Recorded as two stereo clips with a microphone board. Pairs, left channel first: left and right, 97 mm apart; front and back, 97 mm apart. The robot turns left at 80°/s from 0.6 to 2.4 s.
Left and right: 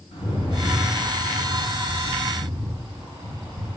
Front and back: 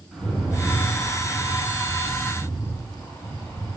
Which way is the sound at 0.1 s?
95° left.